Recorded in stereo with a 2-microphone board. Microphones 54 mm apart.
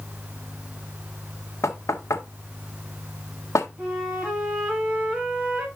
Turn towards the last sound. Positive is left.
turn(degrees=-15)  # may be behind; listen again after turning